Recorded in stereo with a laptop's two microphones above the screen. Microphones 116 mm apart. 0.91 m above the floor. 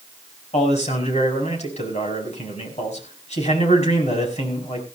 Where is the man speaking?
80° left, 5 m.